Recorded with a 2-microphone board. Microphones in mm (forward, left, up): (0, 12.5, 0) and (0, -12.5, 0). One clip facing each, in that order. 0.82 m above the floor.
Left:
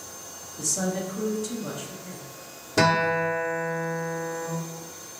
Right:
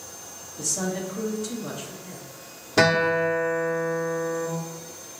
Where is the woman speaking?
5° right (ahead or behind), 1.4 m.